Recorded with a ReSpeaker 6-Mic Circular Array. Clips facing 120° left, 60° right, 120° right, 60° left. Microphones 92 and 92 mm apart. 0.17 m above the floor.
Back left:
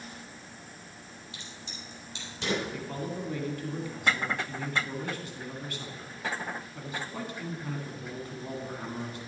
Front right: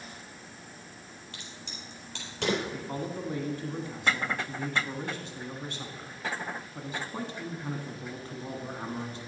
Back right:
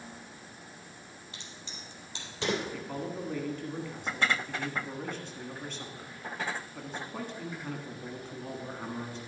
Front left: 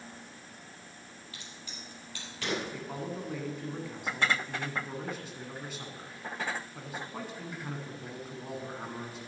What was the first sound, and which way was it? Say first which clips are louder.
A crack: front right 1 dB, even; 55° right.